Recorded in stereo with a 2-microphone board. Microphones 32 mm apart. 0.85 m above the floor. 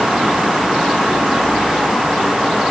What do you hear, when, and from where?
Only background noise.